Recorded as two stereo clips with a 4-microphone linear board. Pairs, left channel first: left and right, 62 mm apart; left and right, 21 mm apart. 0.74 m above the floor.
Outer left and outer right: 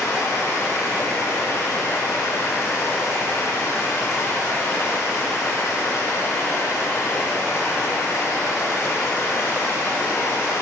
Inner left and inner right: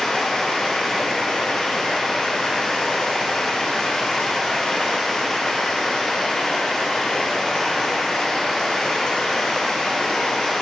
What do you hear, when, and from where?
0.0 s running water: 60° left (ahead or behind), 2 m